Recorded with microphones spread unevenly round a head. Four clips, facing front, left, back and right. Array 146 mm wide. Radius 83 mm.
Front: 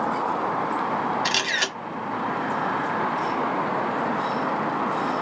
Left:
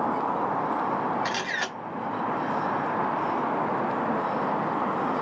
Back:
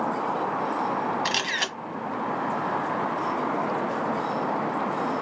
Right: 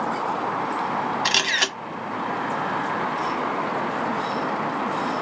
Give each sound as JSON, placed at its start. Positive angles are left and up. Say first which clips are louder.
{"t": 1.2, "sound": "a camera shutter", "louder": "right 4 dB, front 2 dB", "azimuth_deg": -80, "distance_m": 1.8}